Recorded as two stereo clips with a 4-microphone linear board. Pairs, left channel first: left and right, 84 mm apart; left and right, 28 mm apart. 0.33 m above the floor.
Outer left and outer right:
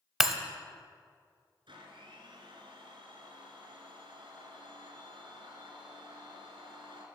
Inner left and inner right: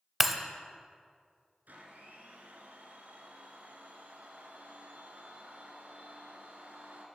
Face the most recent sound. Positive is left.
turn(degrees=-70)  # may be behind; listen again after turning